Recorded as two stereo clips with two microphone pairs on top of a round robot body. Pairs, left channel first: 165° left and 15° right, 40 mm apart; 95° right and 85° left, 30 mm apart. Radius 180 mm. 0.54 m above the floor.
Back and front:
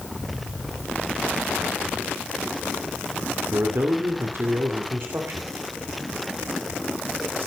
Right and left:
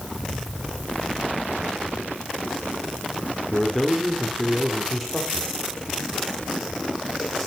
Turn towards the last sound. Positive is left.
turn(degrees=-10)